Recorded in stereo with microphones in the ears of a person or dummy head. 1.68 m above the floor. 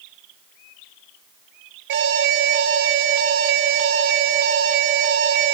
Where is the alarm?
70° right (ahead or behind), 2.5 m.